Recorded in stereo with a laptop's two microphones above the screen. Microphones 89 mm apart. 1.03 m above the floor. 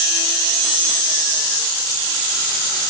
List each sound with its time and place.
Only background noise.